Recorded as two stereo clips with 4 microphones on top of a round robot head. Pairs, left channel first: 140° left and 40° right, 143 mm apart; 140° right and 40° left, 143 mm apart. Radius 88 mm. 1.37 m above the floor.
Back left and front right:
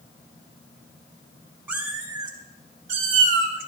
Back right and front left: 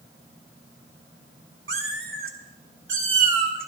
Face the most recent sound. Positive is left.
turn(degrees=-15)